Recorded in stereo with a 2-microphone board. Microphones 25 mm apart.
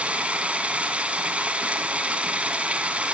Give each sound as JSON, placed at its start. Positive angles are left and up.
{"t": 0.0, "sound": "running water", "side_deg": -55, "distance_m": 2.5}